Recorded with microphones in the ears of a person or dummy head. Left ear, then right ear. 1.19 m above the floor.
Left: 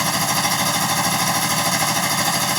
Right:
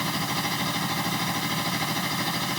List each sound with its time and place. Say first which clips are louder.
0.0 s a machine running: left 8 dB; 45° left (ahead or behind)